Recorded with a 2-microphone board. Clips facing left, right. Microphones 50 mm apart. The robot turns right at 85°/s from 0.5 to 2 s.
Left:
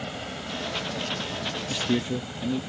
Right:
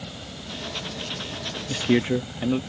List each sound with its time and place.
0.0 s a helicopter: 40° left (ahead or behind); by 2.7 s 10° left (ahead or behind)
1.7 s a man speaking: 35° right (ahead or behind); by 2.6 s 55° right (ahead or behind)